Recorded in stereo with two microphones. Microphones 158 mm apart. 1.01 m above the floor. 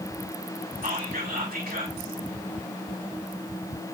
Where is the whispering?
80° right, 4.5 m.